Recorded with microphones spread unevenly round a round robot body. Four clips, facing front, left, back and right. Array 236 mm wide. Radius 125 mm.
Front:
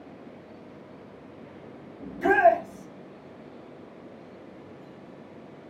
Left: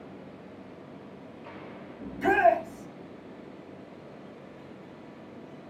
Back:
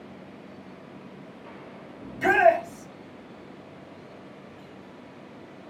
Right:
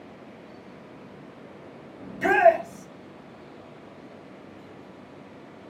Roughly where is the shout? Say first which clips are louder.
Right 4 dB, even; behind right.